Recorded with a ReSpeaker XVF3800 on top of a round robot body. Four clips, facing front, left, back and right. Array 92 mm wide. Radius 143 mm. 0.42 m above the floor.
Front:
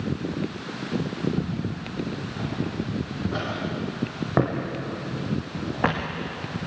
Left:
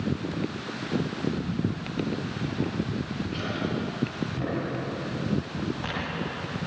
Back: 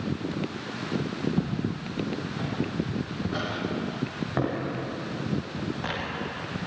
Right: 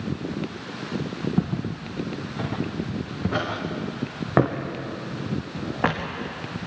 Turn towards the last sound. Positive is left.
turn(degrees=-40)